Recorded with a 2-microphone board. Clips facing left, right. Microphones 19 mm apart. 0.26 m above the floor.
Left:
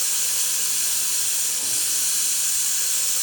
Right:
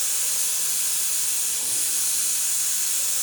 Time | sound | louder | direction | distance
0.0 | running water | left 2 dB | 45° left (ahead or behind) | 1.2 m